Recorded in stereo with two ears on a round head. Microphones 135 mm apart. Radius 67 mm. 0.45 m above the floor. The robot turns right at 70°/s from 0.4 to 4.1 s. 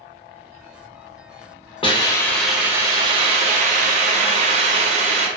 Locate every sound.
1.8 s a hiss: 135° left, 0.5 m; by 5.3 s 65° right, 0.5 m